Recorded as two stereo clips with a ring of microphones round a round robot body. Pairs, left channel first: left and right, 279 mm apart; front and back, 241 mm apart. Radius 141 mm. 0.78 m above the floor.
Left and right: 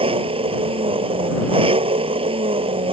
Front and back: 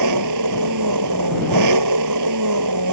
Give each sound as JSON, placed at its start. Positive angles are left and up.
{"t": 0.0, "sound": "an engine running", "azimuth_deg": -160}